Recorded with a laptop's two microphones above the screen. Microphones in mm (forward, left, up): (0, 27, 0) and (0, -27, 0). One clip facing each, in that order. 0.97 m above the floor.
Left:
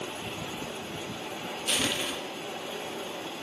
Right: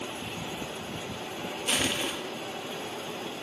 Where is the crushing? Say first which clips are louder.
Right 1 dB; 20° right (ahead or behind), 0.7 m.